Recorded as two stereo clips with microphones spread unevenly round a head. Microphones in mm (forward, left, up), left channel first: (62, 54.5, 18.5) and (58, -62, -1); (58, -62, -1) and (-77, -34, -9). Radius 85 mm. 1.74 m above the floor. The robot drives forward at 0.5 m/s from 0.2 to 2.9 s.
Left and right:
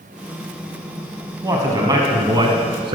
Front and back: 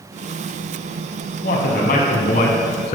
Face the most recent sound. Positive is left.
turn(degrees=-60)